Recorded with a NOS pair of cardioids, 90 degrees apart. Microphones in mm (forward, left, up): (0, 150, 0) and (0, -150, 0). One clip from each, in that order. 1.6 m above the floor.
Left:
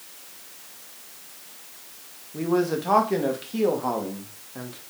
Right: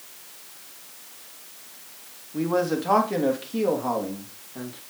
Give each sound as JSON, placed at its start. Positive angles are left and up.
{"t": 2.3, "sound": "a man speaking", "azimuth_deg": -5, "distance_m": 2.5}